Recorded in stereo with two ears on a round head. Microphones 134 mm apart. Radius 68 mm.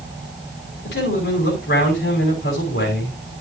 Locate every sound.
0.8 s a man speaking: 85° left, 5 m